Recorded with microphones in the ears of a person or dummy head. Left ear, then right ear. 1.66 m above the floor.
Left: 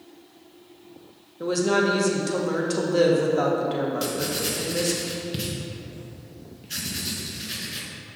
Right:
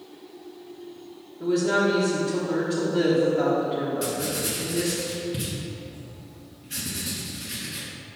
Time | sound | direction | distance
1.4 | a woman speaking | 75° left (ahead or behind) | 1.5 m
4.0 | writing | 20° left (ahead or behind) | 1.1 m